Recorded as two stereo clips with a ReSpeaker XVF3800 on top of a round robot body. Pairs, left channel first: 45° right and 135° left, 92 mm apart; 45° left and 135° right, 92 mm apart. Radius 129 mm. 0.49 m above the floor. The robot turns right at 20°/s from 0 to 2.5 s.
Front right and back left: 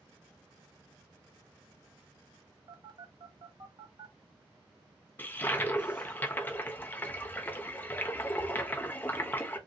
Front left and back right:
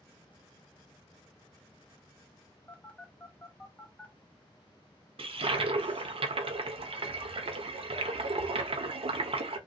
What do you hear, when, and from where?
2.7 s a phone buzzing: 115° left, 1.4 m
5.2 s a toilet flushing: 115° right, 0.6 m